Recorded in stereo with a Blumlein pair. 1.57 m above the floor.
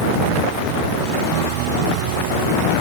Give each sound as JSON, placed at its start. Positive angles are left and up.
{"t": 1.3, "sound": "a piano", "azimuth_deg": -45}